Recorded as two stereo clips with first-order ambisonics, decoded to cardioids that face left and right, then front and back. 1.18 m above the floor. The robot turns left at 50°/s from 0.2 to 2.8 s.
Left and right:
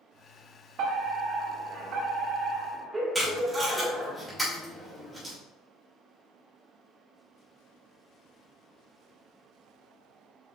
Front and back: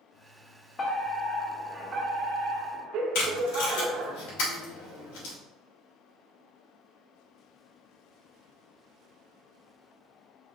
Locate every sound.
0.8 s a fire alarm: 60° right, 1.6 m; by 4.2 s 165° right, 1.6 m
3.1 s tape being pulled: 5° right, 3.5 m